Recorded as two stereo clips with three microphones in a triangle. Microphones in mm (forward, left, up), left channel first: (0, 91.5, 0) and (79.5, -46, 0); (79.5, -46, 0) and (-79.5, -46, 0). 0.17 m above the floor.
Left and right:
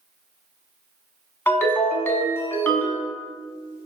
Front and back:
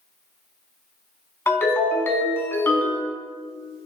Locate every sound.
1.5 s a ringtone: 60° left, 0.8 m